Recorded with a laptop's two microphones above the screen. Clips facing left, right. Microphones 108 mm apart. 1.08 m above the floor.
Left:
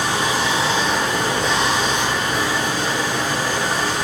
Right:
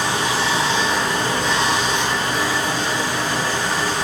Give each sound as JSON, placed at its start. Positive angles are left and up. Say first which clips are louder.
{"t": 0.0, "sound": "running water", "louder": "even", "side_deg": 20, "distance_m": 1.9}